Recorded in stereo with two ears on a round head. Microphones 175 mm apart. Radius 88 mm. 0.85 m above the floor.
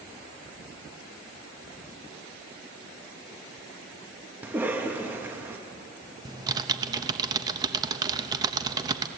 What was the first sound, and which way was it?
A cough, 10° right (ahead or behind).